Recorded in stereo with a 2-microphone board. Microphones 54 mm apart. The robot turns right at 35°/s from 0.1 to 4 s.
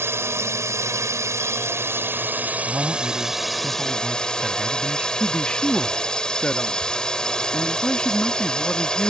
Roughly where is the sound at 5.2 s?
Centre.